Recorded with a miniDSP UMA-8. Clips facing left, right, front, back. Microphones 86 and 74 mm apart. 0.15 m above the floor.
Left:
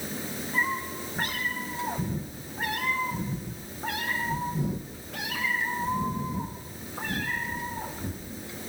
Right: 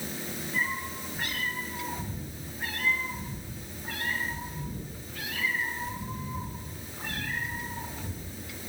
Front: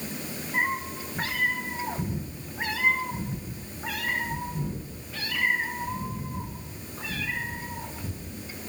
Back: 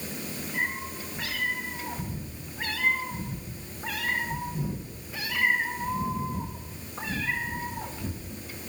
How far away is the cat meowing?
About 4.5 m.